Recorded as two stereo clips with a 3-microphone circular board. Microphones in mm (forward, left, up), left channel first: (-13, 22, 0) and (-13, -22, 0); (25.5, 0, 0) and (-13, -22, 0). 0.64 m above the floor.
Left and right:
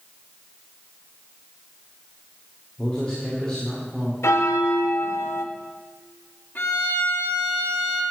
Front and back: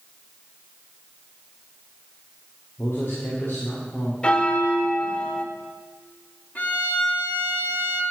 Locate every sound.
2.8 s a man speaking: 20° left, 2 m
4.2 s a bell: 95° left, 0.7 m
6.5 s a violin: 70° left, 1.6 m